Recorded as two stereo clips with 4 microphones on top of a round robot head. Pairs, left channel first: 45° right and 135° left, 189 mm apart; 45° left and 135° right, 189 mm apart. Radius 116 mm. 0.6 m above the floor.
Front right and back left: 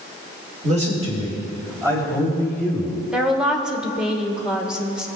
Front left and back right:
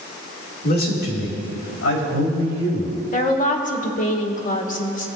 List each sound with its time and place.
0.6 s a man speaking: 85° left, 2.5 m; by 3.0 s 55° left, 5 m
3.1 s a woman speaking: 50° left, 1.3 m